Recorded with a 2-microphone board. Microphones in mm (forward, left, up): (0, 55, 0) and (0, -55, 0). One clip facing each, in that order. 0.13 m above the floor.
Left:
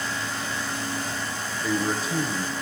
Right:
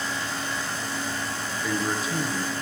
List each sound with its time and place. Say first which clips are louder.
1.6 s a man speaking: left 2 dB; centre (ahead or behind), 1.3 m